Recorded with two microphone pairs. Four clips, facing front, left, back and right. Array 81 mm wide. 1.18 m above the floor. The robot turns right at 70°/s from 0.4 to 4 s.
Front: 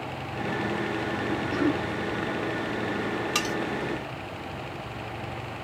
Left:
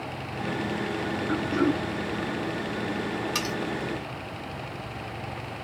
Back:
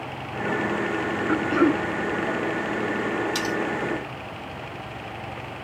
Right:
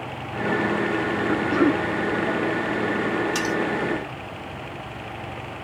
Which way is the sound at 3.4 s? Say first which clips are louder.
Right 6 dB, back 2 dB; 25° left.